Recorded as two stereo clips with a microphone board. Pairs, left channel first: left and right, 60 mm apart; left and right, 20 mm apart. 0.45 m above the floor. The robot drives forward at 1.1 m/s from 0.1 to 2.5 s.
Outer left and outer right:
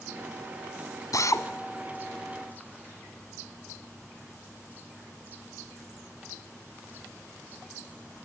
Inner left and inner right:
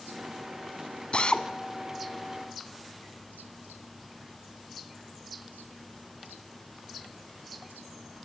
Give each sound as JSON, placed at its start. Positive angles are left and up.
{"t": 1.1, "sound": "a drill", "side_deg": 70, "distance_m": 1.7}